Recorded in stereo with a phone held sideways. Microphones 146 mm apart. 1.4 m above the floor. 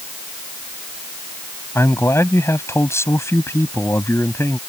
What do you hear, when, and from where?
1.8 s a man speaking: 20° left (ahead or behind)